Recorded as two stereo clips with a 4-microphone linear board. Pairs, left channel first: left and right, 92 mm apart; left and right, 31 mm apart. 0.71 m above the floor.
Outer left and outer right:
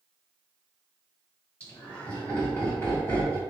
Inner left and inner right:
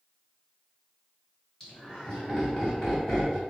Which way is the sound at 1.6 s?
20° left (ahead or behind).